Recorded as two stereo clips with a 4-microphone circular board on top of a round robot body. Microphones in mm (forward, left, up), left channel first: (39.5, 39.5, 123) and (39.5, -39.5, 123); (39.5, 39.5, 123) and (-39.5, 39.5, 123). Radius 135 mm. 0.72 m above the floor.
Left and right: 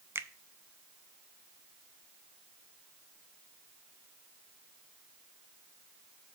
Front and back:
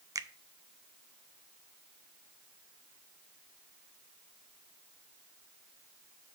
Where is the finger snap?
145° right, 0.7 m.